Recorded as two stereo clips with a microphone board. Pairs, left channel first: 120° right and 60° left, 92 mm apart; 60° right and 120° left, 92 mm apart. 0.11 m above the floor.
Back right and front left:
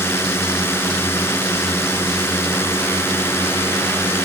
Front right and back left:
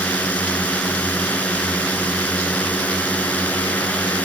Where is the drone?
110° right.